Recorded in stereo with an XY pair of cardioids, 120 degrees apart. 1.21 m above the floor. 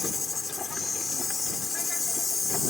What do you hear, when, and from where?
0.0 s an insect: 25° left